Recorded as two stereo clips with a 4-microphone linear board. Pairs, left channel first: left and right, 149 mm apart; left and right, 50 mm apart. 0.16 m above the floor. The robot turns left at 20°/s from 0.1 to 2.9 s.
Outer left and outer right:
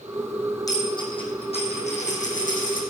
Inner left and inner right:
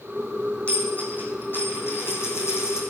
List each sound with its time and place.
0.7 s a dropped coin: 25° left (ahead or behind), 3 m; by 2.8 s 65° left (ahead or behind), 3 m